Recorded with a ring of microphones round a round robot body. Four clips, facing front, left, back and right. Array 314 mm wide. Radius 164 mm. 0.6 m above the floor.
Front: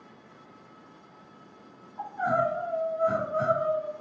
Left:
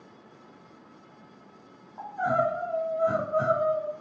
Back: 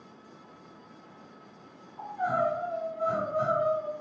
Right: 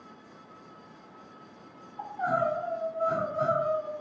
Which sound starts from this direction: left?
Crying, at 2.0 s.